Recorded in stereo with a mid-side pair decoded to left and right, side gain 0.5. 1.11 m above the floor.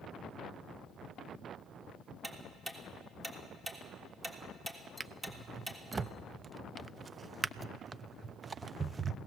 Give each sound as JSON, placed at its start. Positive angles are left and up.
{"t": 2.2, "sound": "ticking", "azimuth_deg": -15, "distance_m": 3.0}
{"t": 5.0, "sound": "a drawer", "azimuth_deg": -35, "distance_m": 0.6}